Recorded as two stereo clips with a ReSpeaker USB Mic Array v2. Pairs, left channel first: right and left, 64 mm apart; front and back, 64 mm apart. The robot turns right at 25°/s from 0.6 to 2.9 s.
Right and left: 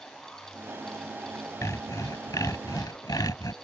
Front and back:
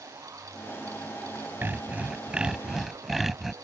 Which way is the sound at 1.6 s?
125° right.